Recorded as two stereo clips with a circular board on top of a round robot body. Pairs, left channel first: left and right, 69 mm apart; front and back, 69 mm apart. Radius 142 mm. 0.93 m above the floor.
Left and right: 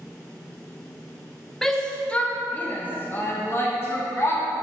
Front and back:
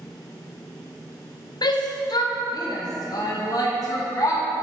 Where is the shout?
5° left, 1.0 m; by 4.4 s 40° left, 2 m.